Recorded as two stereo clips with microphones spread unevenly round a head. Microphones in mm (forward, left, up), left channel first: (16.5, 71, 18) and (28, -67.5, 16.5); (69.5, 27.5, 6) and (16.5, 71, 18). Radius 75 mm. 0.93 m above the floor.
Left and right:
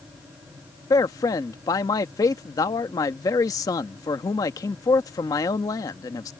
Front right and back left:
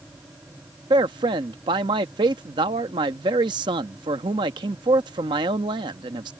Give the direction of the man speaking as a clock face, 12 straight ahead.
7 o'clock.